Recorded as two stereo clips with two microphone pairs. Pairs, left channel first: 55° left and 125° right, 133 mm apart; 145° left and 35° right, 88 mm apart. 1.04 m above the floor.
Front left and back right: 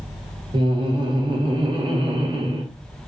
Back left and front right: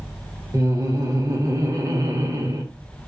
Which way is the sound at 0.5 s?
80° right.